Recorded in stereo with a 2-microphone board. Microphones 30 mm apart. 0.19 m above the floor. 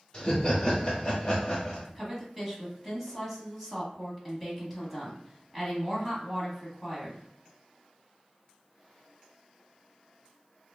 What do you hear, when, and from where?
0.1 s laughter: 15° left (ahead or behind), 1.0 m
1.9 s a woman speaking: 5° right (ahead or behind), 1.2 m